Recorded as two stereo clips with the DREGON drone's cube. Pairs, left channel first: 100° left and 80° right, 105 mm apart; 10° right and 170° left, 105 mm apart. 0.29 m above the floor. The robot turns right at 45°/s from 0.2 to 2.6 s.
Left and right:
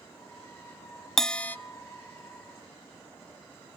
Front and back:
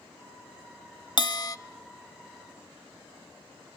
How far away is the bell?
About 0.7 m.